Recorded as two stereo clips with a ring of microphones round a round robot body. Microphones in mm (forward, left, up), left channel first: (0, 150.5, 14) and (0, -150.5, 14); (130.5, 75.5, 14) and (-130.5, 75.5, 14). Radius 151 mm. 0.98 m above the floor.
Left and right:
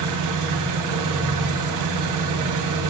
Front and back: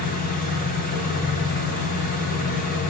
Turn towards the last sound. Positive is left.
turn(degrees=-65)